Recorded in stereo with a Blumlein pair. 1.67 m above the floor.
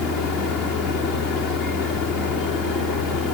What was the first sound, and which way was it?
A machine running, 25° left.